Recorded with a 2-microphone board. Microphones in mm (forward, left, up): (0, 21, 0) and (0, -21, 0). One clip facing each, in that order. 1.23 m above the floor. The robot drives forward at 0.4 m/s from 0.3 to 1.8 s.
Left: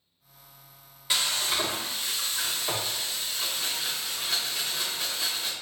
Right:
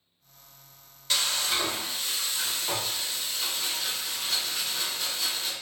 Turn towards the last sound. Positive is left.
turn(degrees=10)  # may be behind; listen again after turning